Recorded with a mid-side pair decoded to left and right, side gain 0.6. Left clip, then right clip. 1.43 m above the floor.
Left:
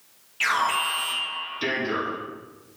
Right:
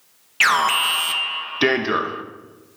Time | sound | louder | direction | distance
0.4 | an alarm | right 6 dB | 55° right | 0.8 m